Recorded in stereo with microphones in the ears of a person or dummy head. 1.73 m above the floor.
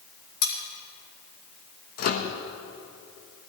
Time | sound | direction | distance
0.4 | cutlery clinking | 70° left (ahead or behind) | 4.5 m
2.0 | a microwave | 40° left (ahead or behind) | 1.3 m